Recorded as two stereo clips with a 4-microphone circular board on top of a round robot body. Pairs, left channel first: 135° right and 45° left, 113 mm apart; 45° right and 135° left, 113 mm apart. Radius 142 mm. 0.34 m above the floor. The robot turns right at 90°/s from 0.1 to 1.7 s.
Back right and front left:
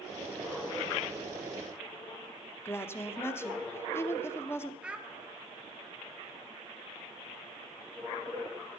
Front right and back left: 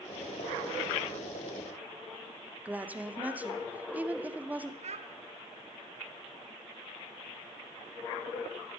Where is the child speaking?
125° left, 1.4 m.